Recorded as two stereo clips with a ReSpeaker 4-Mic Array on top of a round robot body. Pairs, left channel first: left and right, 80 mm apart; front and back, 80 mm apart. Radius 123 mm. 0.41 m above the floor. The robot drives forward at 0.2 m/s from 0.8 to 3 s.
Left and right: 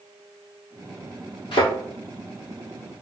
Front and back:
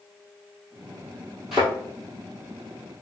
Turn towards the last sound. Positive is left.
turn(degrees=100)